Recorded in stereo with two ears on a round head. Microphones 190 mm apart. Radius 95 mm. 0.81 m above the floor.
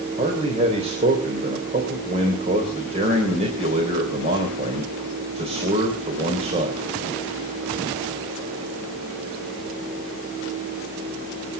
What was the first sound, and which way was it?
A man speaking, 30° right (ahead or behind).